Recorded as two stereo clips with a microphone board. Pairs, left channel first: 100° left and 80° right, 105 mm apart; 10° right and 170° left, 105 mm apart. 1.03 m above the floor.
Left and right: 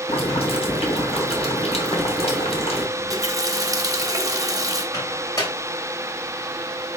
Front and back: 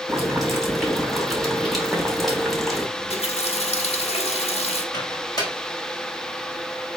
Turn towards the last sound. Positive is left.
turn(degrees=45)